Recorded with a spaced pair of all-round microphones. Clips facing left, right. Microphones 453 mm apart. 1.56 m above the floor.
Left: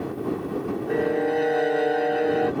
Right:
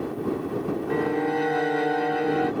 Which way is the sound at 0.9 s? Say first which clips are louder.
Left 3 dB; 20° right (ahead or behind).